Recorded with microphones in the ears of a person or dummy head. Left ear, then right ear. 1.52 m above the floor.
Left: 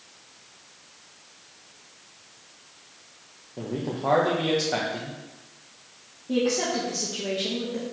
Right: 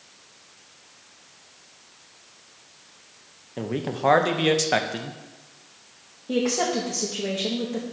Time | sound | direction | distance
3.6 | a man speaking | 55° right (ahead or behind) | 0.7 m
6.3 | a woman speaking | 40° right (ahead or behind) | 0.8 m